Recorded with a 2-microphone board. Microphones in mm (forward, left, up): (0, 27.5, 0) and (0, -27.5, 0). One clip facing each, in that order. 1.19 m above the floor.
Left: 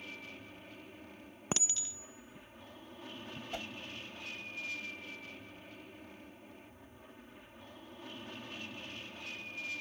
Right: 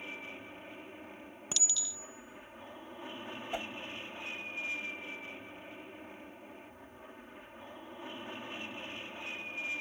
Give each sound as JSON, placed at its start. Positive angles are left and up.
{"t": 0.0, "sound": "an aircraft", "side_deg": -25}
{"t": 1.5, "sound": "a clink", "side_deg": 35}
{"t": 3.5, "sound": "a whoosh", "side_deg": -25}